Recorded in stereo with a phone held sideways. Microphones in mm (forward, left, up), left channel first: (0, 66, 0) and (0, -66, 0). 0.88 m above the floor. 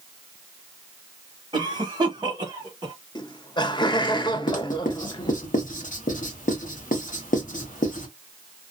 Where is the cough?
30° right (ahead or behind), 1.0 m.